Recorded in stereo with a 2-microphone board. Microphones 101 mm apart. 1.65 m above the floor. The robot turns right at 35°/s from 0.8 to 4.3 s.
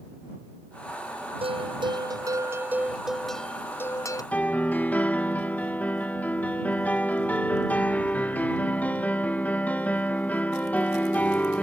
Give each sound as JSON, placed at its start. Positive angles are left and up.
{"t": 1.4, "sound": "a bell", "azimuth_deg": -65}
{"t": 4.3, "sound": "a piano", "side_deg": 15}